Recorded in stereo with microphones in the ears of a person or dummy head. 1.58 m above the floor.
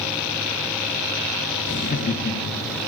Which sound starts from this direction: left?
Laughter, at 1.6 s.